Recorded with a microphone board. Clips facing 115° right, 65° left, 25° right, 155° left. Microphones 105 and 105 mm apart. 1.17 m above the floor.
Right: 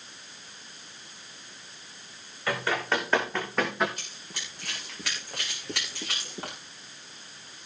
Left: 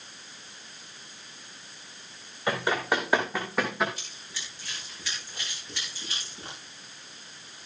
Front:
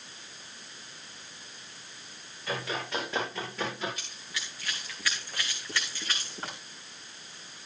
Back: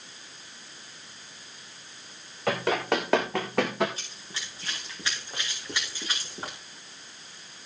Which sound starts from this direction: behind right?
Running footsteps, at 4.0 s.